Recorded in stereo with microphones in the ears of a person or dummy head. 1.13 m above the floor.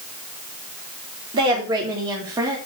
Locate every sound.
1.3 s a woman speaking: 25° right (ahead or behind), 3.5 m; by 2.6 s 15° right (ahead or behind), 3 m